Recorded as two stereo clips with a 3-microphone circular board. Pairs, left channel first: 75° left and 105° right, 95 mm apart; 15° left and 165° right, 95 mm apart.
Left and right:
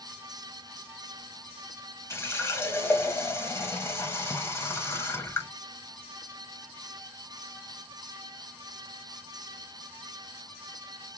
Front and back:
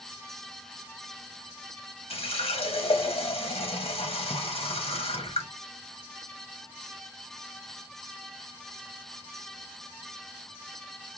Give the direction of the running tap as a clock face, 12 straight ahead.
12 o'clock.